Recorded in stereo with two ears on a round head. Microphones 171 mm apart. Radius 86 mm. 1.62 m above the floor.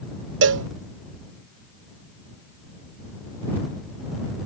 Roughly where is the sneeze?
No sneeze in this recording.